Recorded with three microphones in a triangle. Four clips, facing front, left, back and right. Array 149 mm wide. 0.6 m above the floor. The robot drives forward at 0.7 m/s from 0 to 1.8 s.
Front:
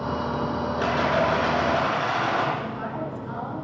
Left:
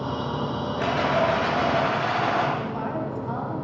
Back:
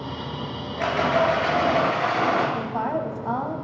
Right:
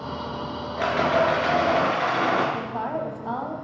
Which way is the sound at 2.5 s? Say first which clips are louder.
Even, back 5 dB; 160° right.